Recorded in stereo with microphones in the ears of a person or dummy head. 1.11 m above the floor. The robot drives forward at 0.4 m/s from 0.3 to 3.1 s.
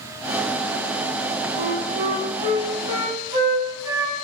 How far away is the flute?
About 1.3 m.